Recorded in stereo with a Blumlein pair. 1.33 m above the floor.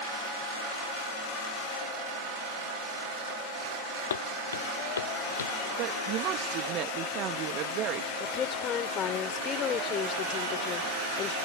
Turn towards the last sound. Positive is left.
turn(degrees=30)